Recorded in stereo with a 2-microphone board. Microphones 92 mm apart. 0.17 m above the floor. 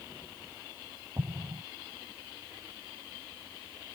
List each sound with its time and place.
1.2 s an explosion: 40° right (ahead or behind)